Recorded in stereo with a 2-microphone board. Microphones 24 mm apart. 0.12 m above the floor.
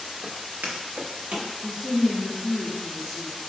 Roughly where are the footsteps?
Right.